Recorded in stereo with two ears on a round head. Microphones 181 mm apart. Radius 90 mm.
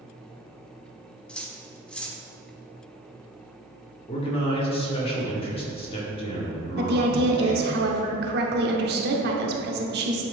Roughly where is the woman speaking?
Right.